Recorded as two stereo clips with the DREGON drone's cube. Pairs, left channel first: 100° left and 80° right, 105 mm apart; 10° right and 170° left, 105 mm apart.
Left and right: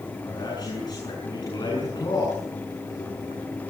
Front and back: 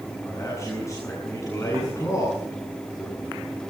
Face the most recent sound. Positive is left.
turn(degrees=50)